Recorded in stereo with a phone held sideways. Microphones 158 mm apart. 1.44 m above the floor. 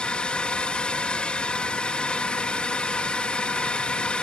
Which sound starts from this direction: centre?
A drone, at 0.0 s.